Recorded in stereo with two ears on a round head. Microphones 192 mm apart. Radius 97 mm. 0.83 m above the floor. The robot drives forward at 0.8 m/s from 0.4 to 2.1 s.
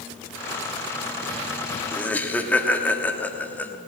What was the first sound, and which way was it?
Laughter, 5° left (ahead or behind).